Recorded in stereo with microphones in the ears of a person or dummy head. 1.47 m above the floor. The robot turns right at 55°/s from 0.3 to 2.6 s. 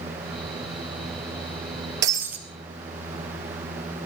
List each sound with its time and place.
2.0 s breaking glass: 25° right (ahead or behind), 2 m; by 2.4 s 10° right (ahead or behind), 2 m